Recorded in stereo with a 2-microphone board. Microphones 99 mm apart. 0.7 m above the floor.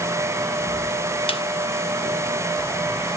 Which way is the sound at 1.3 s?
70° left (ahead or behind).